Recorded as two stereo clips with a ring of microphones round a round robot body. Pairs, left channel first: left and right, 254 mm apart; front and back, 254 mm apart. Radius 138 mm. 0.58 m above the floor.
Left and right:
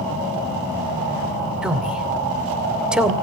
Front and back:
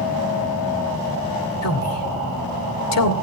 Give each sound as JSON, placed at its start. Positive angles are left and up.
{"t": 1.6, "sound": "a man speaking", "azimuth_deg": -5, "distance_m": 2.5}